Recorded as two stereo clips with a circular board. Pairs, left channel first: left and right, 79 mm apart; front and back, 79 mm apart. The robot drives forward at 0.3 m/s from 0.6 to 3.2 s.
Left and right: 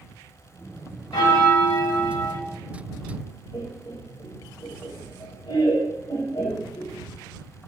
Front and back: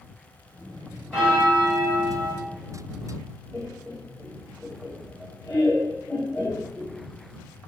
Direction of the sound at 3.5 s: 85° left.